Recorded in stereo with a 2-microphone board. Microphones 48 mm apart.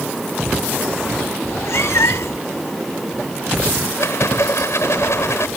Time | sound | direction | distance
1.4 | a cat meowing | 70° left (ahead or behind) | ?
4.0 | a rattle | 65° left (ahead or behind) | ?